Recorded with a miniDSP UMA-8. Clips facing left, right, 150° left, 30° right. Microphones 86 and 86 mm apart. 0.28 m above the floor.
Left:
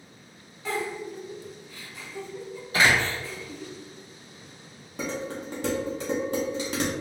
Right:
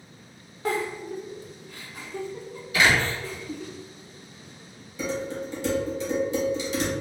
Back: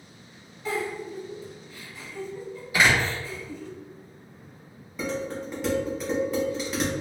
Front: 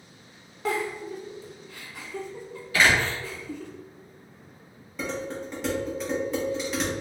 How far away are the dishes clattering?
About 1.3 m.